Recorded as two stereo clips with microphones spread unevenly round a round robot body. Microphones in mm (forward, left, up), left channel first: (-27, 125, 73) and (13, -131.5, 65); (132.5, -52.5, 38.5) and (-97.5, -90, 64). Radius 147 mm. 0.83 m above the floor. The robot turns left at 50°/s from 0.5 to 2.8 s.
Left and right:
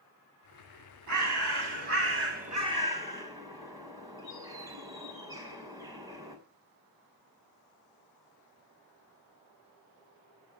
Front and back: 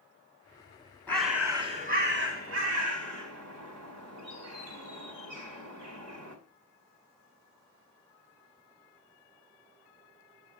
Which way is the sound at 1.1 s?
70° right.